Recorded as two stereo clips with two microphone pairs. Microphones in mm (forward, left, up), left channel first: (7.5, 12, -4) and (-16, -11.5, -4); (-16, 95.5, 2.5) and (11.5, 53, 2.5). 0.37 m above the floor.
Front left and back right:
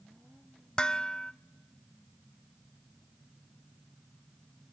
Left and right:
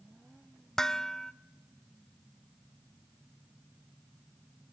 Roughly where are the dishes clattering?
Left.